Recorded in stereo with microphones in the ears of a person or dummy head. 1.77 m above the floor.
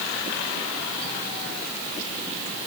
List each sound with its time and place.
Only background noise.